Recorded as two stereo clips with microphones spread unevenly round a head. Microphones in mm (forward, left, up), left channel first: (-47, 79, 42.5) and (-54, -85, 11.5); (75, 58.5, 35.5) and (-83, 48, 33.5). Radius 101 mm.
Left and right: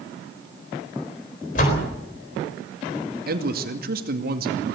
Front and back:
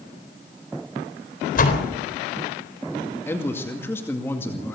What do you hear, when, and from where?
1.6 s a door slam: 35° left, 3.5 m
3.3 s a man speaking: 75° right, 2 m